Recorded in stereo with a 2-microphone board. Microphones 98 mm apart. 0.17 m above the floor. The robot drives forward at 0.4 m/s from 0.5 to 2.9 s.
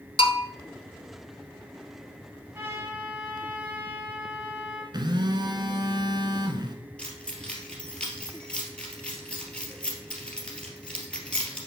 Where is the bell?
70° left (ahead or behind), 1.0 m.